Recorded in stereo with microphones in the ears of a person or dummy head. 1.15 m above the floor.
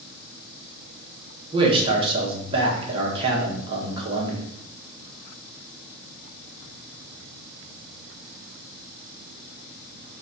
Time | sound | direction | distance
1.5 | a man speaking | 30° right (ahead or behind) | 1.2 m